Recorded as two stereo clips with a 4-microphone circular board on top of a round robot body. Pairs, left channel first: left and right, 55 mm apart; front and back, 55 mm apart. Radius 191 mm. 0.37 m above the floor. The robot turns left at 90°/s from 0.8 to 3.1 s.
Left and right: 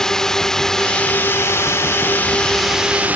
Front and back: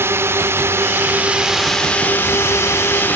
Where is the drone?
165° left; by 3.2 s 40° right.